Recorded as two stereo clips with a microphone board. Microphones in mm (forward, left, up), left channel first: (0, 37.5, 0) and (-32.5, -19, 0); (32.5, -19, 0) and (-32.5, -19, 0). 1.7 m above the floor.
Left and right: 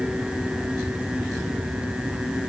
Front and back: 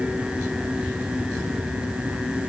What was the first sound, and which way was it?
Only background noise.